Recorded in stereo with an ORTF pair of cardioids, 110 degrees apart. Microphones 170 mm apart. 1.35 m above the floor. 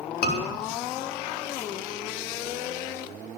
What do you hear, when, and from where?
0.2 s a scream: 65° left, 4.5 m